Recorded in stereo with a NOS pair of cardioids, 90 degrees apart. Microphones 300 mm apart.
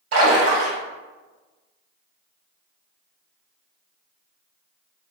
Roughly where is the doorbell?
No doorbell in this recording.